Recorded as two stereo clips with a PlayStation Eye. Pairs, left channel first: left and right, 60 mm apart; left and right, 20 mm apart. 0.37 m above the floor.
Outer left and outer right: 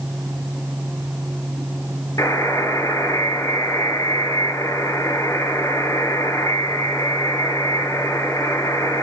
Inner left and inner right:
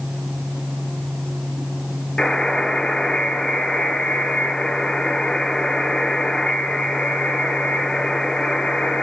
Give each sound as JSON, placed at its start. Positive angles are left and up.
{"t": 2.2, "sound": "a buzzer", "side_deg": 70, "distance_m": 8.0}